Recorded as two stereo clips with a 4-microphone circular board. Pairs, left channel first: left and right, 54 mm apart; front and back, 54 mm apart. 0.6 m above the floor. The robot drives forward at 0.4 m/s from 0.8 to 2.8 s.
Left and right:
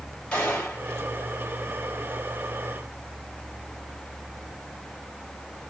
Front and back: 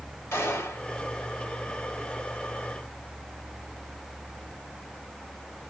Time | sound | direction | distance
0.3 | a gunshot | 20° left | 2 m